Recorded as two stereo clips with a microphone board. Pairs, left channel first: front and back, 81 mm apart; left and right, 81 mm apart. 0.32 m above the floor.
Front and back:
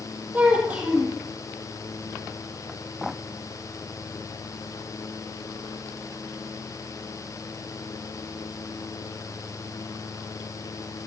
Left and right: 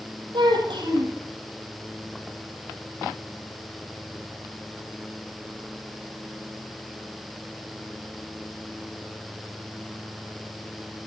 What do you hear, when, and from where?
0.3 s a child speaking: 110° right, 5.5 m